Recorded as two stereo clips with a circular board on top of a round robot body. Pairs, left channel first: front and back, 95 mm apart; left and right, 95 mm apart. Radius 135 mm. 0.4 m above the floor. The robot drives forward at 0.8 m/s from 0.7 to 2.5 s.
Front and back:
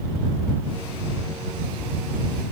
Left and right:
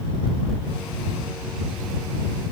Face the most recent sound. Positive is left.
No sound to turn to.